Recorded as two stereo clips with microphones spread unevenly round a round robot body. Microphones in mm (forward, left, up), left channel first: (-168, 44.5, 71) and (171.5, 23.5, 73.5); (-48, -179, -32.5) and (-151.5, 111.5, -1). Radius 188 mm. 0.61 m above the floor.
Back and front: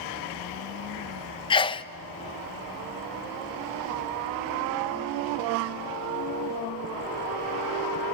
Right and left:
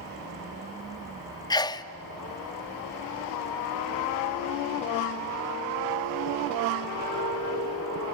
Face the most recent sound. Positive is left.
turn(degrees=-120)